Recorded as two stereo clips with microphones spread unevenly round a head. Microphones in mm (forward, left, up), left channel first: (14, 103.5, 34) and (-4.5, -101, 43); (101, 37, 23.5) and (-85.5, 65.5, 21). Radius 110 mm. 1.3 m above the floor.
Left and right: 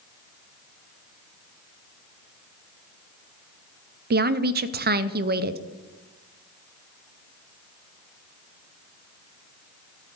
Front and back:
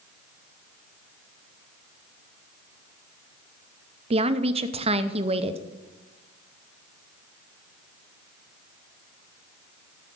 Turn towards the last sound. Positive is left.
turn(degrees=-130)